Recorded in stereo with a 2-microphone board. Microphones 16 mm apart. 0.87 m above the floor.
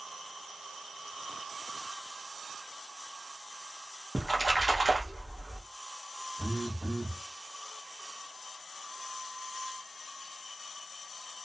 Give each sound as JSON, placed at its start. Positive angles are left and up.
{"t": 4.2, "sound": "a splash", "side_deg": -5, "distance_m": 0.9}
{"t": 6.4, "sound": "a phone buzzing", "side_deg": 30, "distance_m": 1.0}